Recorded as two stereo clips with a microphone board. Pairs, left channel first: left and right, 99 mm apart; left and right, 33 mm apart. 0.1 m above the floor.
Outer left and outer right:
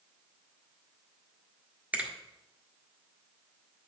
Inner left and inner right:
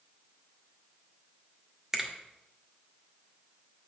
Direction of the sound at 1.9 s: 15° right (ahead or behind).